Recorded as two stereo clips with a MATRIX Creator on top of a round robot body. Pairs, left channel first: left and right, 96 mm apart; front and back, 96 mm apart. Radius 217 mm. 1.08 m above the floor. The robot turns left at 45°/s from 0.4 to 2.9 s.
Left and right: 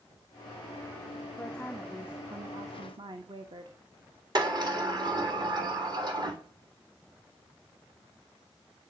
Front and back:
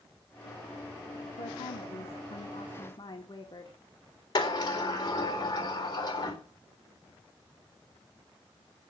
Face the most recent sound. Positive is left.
turn(degrees=-50)